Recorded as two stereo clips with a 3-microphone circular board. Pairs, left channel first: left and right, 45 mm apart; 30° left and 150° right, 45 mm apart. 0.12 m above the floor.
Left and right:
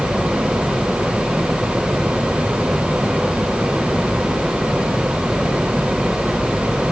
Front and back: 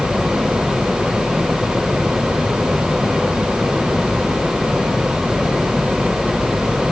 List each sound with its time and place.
Only background noise.